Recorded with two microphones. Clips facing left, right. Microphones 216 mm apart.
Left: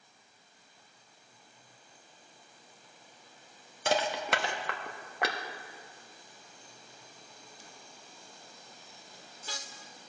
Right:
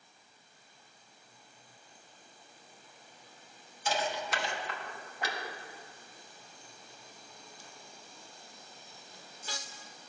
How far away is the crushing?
About 1.1 m.